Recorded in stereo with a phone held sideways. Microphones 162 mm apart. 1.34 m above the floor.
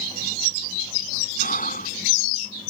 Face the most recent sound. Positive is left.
turn(degrees=55)  # may be behind; listen again after turning